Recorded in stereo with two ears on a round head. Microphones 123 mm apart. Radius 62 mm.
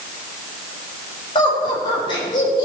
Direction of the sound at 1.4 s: 30° left (ahead or behind).